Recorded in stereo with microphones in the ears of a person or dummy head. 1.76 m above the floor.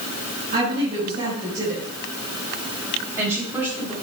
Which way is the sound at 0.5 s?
40° right (ahead or behind).